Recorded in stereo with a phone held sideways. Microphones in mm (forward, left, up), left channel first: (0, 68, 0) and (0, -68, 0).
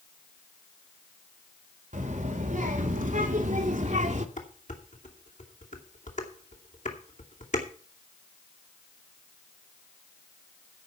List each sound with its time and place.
1.9 s a child speaking: 75° right (ahead or behind), 3.5 m; by 4.3 s 65° right (ahead or behind), 1.9 m
4.4 s dishes clattering: 70° left (ahead or behind), 2.5 m